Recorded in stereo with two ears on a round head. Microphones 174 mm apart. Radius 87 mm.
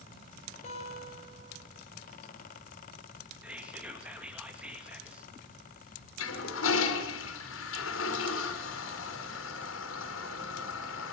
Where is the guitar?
35° left (ahead or behind), 10 m.